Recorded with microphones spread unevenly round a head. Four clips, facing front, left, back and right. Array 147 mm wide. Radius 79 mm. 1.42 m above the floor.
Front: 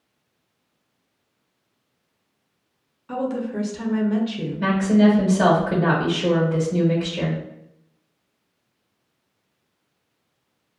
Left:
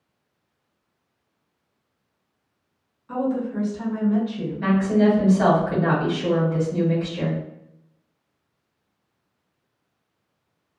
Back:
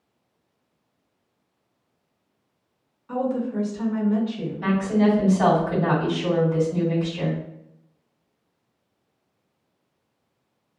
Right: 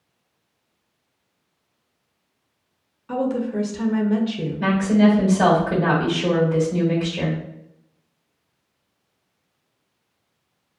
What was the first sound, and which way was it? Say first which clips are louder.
A woman speaking: right 2 dB, back 1 dB; 40° right.